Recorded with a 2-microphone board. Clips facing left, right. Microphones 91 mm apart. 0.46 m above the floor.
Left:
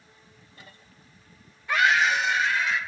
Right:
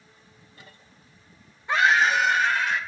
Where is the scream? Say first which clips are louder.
Right 2 dB; 25° right (ahead or behind), 1.1 m; by 2.8 s 55° right (ahead or behind), 1.7 m.